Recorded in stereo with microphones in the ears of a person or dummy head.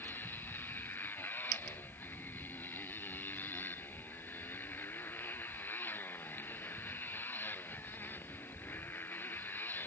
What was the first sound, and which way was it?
A motorcycle, 10° left (ahead or behind).